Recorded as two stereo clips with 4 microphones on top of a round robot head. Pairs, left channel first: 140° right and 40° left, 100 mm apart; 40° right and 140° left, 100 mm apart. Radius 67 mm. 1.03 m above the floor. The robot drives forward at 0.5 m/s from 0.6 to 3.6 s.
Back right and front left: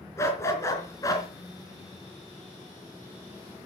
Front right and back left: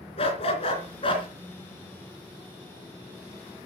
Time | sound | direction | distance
0.2 | a dog barking | 75° right | 3 m